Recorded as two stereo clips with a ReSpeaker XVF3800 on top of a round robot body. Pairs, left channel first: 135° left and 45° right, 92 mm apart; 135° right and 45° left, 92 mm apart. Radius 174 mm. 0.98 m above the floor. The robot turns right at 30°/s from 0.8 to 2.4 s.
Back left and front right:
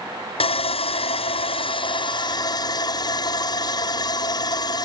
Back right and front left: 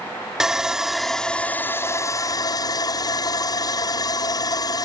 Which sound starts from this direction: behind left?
Sawing, at 0.4 s.